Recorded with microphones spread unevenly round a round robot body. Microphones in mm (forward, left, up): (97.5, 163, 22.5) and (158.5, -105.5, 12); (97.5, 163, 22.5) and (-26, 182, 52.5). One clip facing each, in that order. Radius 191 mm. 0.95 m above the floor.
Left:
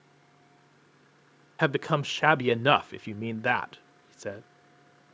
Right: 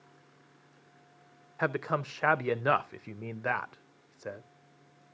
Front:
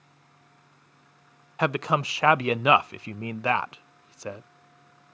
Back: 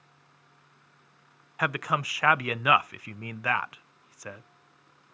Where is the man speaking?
55° left, 0.5 m.